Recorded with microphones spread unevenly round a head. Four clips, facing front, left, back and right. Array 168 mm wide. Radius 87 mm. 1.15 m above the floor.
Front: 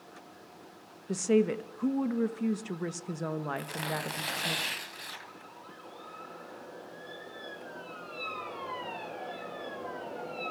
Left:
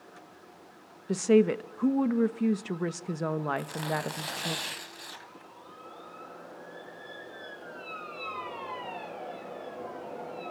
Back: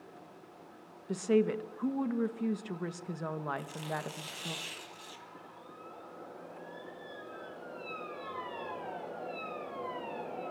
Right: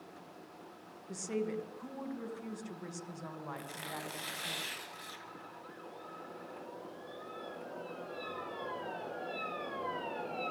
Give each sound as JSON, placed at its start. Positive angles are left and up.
{"t": 1.1, "sound": "a woman speaking", "azimuth_deg": 85, "distance_m": 1.6}
{"t": 3.6, "sound": "tearing paper", "azimuth_deg": 30, "distance_m": 3.0}